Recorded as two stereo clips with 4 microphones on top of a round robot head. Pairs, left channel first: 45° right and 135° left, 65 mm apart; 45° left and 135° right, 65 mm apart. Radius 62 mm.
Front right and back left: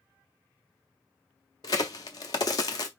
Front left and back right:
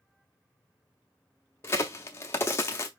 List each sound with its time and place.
1.6 s a crack: 10° right, 0.7 m